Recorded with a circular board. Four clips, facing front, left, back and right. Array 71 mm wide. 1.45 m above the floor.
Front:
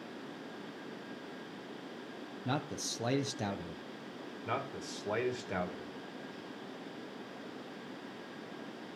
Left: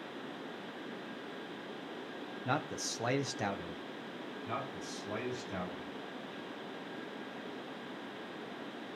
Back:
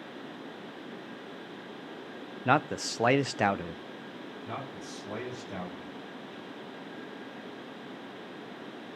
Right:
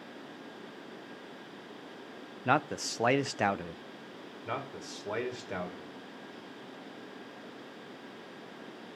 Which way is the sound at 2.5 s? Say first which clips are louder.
Right 8 dB, back 11 dB; 150° right.